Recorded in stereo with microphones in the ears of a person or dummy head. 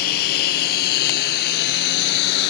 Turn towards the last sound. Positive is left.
turn(degrees=65)  # may be behind; listen again after turning